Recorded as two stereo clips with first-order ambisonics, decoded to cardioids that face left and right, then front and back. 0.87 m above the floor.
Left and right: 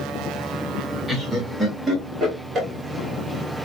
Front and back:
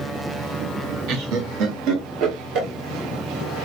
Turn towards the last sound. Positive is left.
turn(degrees=-155)